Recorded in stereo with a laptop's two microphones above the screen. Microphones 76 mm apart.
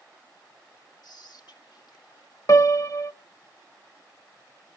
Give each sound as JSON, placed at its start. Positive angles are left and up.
{"t": 1.0, "sound": "whispering", "side_deg": 65, "distance_m": 1.9}
{"t": 2.5, "sound": "a piano", "side_deg": 50, "distance_m": 0.9}